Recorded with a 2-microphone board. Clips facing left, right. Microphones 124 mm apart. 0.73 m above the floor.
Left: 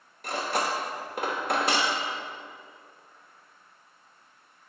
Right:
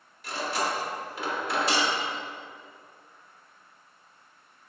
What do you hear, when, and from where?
0.2 s cutlery clinking: 55° left (ahead or behind), 0.9 m